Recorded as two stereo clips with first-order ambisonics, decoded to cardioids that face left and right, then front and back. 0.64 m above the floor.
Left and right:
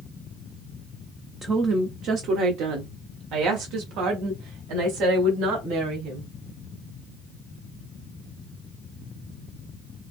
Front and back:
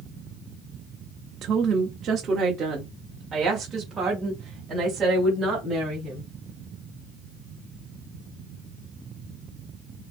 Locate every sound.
1.4 s a woman speaking: 150° right, 0.7 m; by 6.3 s 105° right, 3.5 m